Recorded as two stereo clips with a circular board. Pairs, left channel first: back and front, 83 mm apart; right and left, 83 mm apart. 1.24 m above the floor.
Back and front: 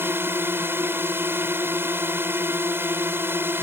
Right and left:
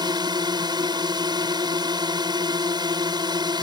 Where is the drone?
65° left.